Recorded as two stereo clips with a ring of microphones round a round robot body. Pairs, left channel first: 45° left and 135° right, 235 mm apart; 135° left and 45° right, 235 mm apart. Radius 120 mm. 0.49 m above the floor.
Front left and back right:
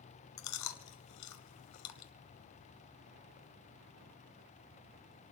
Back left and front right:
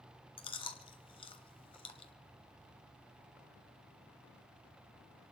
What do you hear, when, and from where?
0.4 s chewing: 65° left, 1.0 m